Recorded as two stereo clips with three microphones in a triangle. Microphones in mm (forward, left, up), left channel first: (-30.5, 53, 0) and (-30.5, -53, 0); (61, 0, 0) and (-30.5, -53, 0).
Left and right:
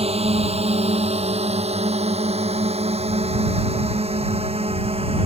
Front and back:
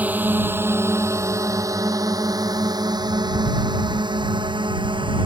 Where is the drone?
75° right; by 5.3 s 110° right.